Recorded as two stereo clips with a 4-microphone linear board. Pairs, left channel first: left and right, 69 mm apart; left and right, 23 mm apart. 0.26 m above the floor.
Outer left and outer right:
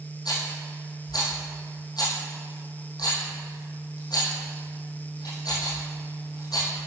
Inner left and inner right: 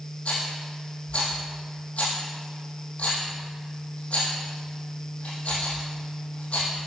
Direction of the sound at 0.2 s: 65° left (ahead or behind).